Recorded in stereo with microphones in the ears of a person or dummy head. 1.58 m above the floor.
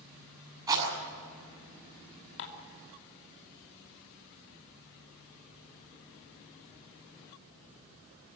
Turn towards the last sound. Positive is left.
turn(degrees=65)  # may be behind; listen again after turning